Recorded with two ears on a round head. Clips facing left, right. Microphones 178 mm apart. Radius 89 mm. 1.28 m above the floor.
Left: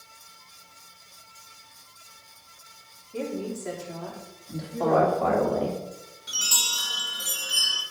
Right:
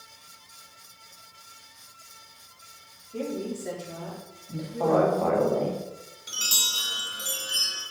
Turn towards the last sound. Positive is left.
turn(degrees=-25)  # may be behind; listen again after turning